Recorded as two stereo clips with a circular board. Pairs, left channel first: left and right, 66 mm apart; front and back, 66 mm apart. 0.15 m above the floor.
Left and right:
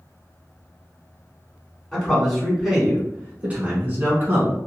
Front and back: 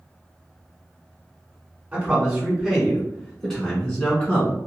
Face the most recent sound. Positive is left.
turn(degrees=-60)